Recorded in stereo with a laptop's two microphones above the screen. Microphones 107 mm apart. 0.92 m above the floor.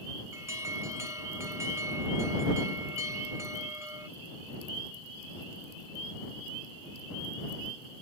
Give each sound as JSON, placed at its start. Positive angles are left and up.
{"t": 0.3, "sound": "an alarm", "side_deg": -25}